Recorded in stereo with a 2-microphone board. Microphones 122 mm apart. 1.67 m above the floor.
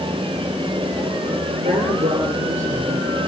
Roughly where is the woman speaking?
Right.